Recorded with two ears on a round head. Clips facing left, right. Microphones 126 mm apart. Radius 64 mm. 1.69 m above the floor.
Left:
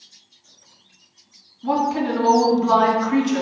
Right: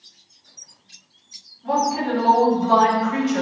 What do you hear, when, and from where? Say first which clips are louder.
1.6 s a woman speaking: left 1 dB; 75° left (ahead or behind), 3 m